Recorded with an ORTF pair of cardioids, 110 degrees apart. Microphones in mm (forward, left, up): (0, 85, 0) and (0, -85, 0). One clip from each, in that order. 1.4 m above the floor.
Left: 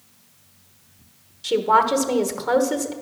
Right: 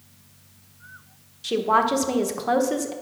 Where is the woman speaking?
5° left, 1.1 m.